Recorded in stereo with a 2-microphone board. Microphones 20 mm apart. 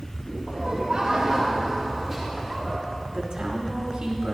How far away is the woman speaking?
About 2 m.